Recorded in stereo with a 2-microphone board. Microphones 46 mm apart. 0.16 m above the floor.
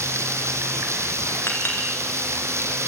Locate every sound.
0.0 s running water: 80° right, 2.0 m
1.5 s a clink: 55° left (ahead or behind), 4.5 m